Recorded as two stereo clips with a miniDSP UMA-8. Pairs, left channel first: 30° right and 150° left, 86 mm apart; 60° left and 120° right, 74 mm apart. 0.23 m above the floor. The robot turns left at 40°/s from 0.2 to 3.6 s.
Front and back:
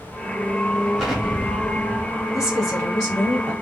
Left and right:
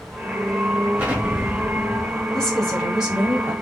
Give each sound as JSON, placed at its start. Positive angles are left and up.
{"t": 1.0, "sound": "an explosion", "azimuth_deg": -140, "distance_m": 1.1}
{"t": 2.3, "sound": "a woman speaking", "azimuth_deg": -15, "distance_m": 1.8}